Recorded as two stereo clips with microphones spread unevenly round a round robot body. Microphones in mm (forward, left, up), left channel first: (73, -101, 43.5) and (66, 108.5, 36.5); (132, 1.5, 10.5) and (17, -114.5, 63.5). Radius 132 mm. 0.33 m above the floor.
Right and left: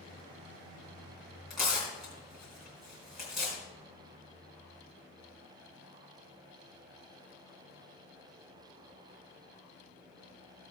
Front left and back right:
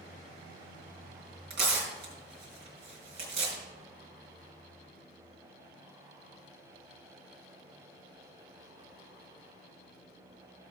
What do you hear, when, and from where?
1.5 s tearing paper: straight behind, 3 m